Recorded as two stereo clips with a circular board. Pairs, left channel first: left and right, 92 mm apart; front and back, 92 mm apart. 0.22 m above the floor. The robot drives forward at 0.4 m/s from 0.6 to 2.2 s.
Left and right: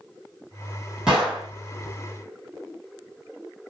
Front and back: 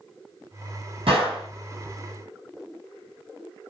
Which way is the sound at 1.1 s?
175° right.